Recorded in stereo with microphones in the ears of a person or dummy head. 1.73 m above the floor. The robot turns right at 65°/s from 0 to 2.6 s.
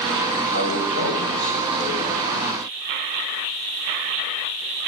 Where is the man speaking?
45° left, 6.5 m; by 2.2 s 160° left, 6.5 m.